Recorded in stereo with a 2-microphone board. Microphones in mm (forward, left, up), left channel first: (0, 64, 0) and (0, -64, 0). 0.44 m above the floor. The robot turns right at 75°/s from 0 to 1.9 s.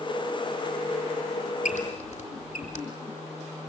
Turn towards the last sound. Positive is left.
turn(degrees=70)  # may be behind; listen again after turning